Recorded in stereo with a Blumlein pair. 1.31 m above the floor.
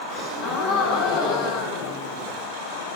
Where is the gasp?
35° left, 4.5 m.